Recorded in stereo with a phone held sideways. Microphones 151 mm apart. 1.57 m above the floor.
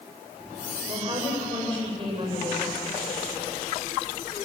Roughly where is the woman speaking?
Right.